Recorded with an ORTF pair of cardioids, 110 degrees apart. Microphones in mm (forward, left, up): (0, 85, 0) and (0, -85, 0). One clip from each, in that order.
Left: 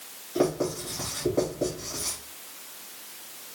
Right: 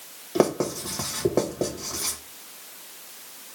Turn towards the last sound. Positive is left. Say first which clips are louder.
# right 3 dB
turn(degrees=-65)